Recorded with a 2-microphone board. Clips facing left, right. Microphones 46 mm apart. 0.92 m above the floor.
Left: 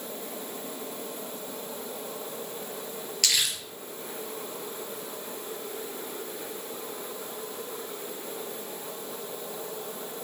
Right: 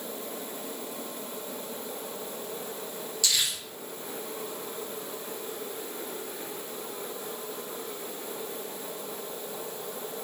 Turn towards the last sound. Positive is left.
turn(degrees=65)  # may be behind; listen again after turning